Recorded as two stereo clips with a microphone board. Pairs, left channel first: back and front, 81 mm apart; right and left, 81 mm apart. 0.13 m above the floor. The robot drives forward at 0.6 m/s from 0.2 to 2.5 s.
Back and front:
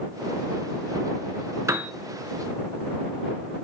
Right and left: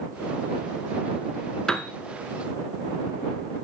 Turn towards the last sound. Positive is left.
turn(degrees=-145)